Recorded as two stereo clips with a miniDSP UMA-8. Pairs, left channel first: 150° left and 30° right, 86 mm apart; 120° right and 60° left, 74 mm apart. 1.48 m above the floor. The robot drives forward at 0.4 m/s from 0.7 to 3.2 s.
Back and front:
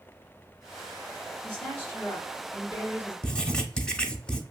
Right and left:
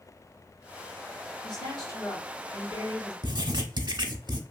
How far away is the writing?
About 0.5 m.